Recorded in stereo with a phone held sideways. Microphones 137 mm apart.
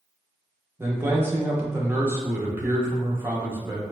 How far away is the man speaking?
About 0.9 m.